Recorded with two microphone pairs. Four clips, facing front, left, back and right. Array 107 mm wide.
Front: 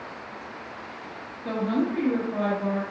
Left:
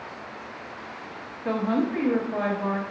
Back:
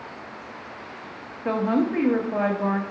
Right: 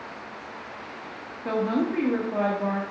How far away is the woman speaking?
About 0.9 m.